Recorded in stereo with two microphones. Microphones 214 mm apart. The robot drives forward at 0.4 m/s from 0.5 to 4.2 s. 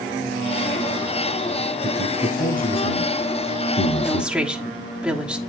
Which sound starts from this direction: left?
A man speaking, at 1.8 s.